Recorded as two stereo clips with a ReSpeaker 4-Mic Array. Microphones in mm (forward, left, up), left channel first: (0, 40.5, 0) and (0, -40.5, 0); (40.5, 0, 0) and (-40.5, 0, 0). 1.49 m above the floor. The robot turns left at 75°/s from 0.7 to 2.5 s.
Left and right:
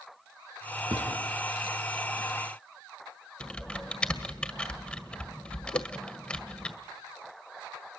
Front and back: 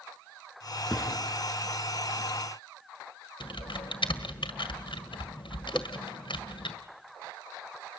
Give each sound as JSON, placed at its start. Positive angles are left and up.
{"t": 0.9, "sound": "a thud", "azimuth_deg": -85, "distance_m": 4.5}
{"t": 3.4, "sound": "typing on a keyboard", "azimuth_deg": 10, "distance_m": 1.7}
{"t": 5.7, "sound": "a whoosh", "azimuth_deg": 85, "distance_m": 0.9}